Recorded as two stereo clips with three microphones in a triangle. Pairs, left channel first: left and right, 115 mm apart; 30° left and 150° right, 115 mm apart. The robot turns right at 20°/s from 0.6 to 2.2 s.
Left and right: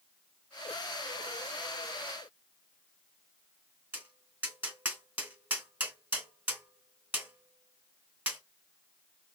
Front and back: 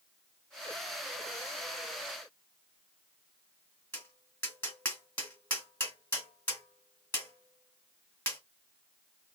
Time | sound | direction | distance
3.9 | tapping | 30° right | 2.0 m